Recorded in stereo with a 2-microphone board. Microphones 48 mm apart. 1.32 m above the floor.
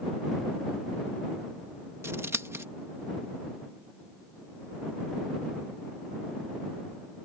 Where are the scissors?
80° right.